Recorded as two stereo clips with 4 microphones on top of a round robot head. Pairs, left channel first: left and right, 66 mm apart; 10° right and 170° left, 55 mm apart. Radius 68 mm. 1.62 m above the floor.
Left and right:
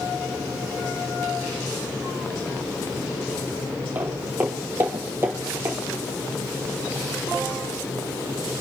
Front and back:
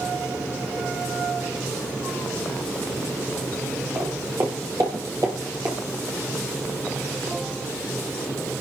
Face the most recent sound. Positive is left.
turn(degrees=-130)